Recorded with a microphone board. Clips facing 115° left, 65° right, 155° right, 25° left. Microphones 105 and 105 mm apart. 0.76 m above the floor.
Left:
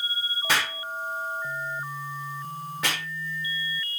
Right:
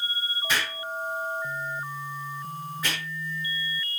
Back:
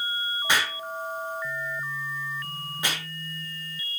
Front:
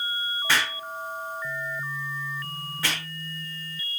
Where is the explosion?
130° left, 1.2 m.